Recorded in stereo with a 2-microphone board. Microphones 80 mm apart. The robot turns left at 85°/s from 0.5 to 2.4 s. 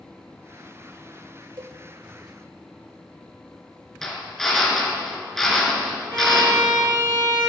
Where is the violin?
60° right (ahead or behind), 6 m.